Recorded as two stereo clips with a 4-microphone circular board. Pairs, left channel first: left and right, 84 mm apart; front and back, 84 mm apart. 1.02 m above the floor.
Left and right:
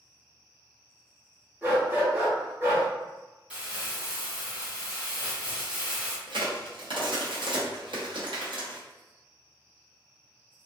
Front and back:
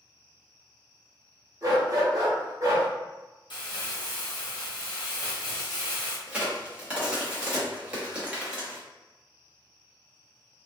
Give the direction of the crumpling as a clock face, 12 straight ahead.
12 o'clock.